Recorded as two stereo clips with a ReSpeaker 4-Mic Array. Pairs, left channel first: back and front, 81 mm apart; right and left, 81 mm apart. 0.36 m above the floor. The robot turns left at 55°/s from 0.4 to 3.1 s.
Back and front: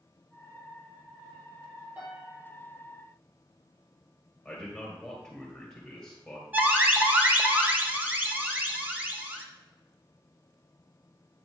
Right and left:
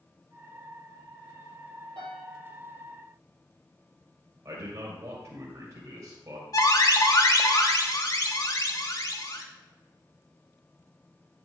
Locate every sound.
2.0 s a piano: 70° left, 3 m; by 2.5 s 45° left, 3 m
4.5 s a man speaking: 100° left, 1.9 m
6.5 s an alarm: 65° right, 1.0 m